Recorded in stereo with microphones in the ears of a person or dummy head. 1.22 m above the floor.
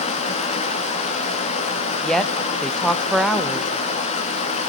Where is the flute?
I don't hear a flute.